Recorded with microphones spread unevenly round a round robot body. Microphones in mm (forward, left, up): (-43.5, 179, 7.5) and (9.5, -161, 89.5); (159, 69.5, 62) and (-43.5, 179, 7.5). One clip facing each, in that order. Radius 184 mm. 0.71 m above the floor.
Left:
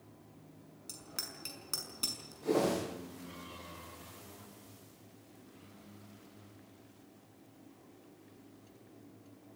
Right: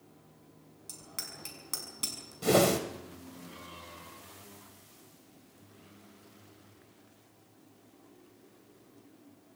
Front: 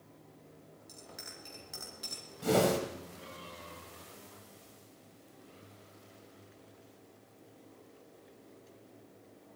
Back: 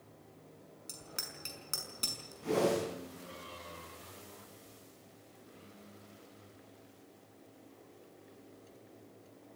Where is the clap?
I don't hear a clap.